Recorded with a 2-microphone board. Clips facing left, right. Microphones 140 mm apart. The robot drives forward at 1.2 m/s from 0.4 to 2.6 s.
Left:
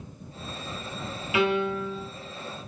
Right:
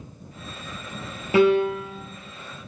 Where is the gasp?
I don't hear a gasp.